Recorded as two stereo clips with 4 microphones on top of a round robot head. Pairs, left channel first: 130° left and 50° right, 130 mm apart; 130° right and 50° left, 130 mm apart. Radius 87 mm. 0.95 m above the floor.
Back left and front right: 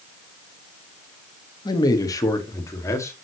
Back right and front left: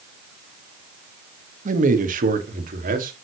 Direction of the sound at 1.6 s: 70° left.